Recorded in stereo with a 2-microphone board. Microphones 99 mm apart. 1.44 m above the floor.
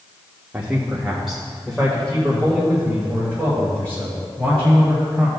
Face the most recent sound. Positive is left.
turn(degrees=15)  # may be behind; listen again after turning